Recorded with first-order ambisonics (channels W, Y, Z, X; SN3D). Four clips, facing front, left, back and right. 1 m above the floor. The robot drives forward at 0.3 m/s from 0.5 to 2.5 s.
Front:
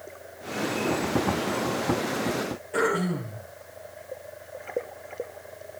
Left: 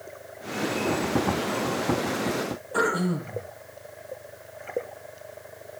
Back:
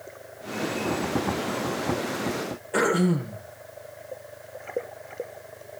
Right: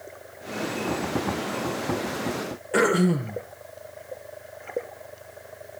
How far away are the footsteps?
I don't hear footsteps.